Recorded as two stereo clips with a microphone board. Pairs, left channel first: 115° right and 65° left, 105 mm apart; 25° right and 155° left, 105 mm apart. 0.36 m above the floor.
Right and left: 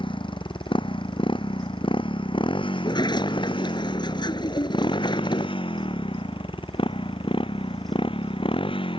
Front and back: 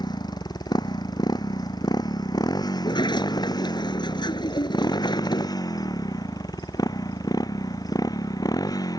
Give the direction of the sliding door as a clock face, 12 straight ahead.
2 o'clock.